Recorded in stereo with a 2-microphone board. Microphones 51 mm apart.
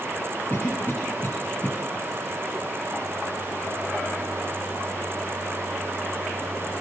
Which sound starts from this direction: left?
A cough, at 0.5 s.